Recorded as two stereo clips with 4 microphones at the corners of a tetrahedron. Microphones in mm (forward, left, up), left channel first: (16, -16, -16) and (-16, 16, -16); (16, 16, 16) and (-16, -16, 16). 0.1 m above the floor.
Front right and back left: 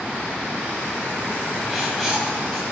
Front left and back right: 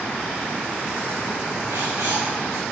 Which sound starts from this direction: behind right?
Writing, at 1.7 s.